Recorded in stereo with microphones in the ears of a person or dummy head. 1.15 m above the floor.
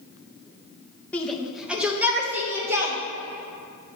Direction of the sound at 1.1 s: 5° left (ahead or behind).